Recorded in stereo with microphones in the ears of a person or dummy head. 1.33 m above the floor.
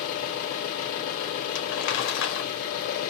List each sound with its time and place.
0.0 s an engine running: 50° left (ahead or behind), 1.5 m
1.6 s crumpling: 60° left (ahead or behind), 1.3 m